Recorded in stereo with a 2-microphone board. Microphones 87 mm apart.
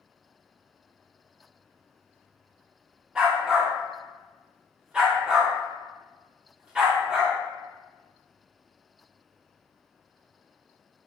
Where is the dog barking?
10° right (ahead or behind), 0.7 m.